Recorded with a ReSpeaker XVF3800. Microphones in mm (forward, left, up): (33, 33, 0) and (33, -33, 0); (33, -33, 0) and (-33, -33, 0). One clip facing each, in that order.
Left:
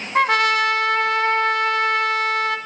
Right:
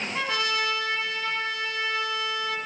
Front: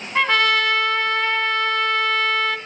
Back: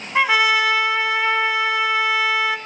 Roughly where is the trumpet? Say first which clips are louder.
Left 12 dB, back 1 dB; left.